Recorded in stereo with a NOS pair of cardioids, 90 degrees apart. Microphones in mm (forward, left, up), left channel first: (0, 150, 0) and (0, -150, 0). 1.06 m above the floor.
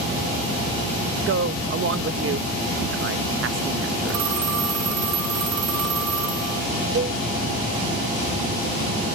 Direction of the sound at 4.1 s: 70° right.